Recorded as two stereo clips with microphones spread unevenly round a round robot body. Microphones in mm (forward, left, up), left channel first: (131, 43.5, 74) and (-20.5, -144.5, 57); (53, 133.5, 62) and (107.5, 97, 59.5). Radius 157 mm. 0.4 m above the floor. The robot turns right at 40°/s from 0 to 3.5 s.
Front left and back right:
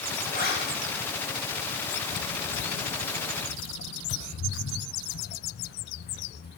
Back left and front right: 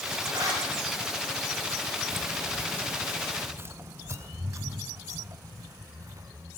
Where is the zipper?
10° right, 8 m; by 0.6 s 5° left, 8 m.